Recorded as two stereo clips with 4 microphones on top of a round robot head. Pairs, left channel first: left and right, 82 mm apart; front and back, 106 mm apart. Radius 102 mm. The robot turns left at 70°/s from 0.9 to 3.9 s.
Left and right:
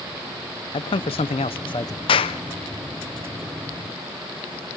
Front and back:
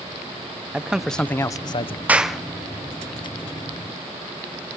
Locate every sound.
0.7 s a man speaking: 95° left, 0.7 m; by 2.0 s 20° left, 0.7 m
2.1 s a clap: 105° left, 0.9 m; by 2.4 s 80° left, 0.9 m